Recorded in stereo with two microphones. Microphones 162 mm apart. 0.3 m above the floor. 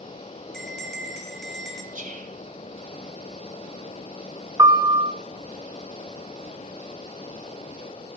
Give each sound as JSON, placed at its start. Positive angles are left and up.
{"t": 0.5, "sound": "a bell", "side_deg": 0, "distance_m": 1.6}
{"t": 1.9, "sound": "whispering", "side_deg": -50, "distance_m": 1.7}
{"t": 4.6, "sound": "a piano", "side_deg": -25, "distance_m": 0.7}